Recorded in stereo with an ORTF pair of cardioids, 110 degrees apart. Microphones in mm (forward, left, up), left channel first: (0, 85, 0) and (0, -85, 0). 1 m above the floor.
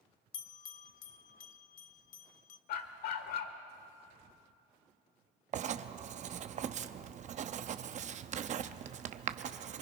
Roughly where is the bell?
Ahead left.